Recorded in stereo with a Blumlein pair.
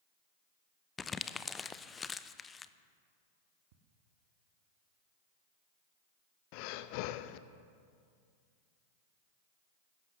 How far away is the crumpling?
About 0.6 m.